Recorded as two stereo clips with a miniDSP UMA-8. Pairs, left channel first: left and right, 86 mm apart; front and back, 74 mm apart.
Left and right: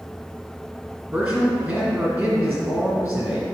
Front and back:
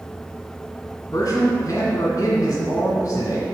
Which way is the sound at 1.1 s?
35° right.